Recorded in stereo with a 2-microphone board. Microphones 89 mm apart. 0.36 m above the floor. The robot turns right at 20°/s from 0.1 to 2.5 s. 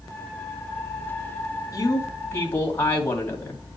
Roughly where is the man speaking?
Left.